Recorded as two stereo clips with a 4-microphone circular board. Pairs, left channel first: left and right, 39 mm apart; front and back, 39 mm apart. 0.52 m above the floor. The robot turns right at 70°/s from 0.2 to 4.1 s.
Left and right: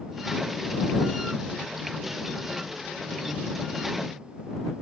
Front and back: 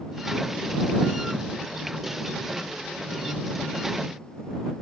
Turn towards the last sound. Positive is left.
No sound to turn to.